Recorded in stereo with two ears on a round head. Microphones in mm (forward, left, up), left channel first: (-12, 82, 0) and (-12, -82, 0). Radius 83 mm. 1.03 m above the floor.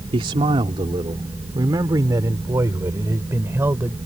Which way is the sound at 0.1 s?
30° right (ahead or behind).